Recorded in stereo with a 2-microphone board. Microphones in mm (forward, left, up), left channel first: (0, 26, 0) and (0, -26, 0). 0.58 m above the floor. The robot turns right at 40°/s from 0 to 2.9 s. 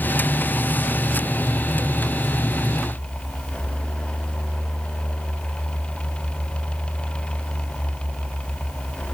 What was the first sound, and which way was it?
Only background noise.